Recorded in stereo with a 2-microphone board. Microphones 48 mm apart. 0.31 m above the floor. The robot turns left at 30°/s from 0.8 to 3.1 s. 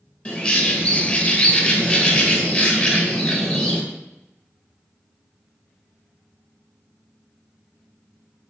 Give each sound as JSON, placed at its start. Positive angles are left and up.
{"t": 0.2, "sound": "a bird", "side_deg": 25, "distance_m": 0.7}